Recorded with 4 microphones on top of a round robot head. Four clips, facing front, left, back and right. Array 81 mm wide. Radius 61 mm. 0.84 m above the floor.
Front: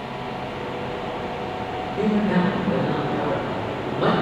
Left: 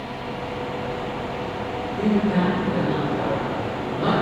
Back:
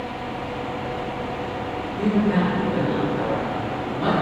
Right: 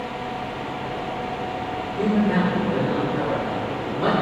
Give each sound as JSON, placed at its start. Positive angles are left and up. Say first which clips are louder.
{"t": 2.0, "sound": "a man speaking", "louder": "even, even", "azimuth_deg": -10, "distance_m": 2.5}